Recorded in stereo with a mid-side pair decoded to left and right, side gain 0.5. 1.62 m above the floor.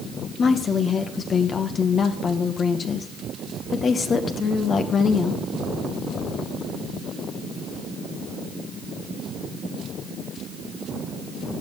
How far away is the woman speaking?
About 1.9 m.